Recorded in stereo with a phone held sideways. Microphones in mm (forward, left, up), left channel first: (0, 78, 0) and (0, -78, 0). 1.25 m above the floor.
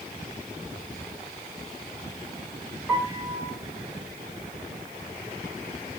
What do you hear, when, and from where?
2.9 s a piano: 5° right (ahead or behind), 1.2 m